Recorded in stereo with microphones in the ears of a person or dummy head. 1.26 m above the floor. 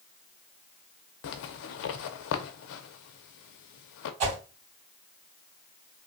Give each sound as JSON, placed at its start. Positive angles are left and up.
{"t": 1.2, "sound": "a zipper", "side_deg": 65, "distance_m": 0.5}
{"t": 4.2, "sound": "a whoosh", "side_deg": -35, "distance_m": 2.0}